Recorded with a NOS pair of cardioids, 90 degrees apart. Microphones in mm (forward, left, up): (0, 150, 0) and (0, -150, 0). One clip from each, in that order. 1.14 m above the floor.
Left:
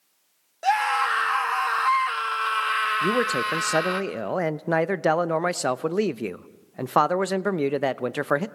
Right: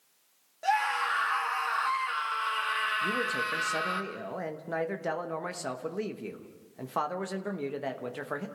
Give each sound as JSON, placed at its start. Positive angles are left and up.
{"t": 0.6, "sound": "a scream", "azimuth_deg": 40, "distance_m": 1.8}
{"t": 3.0, "sound": "a man speaking", "azimuth_deg": 55, "distance_m": 0.8}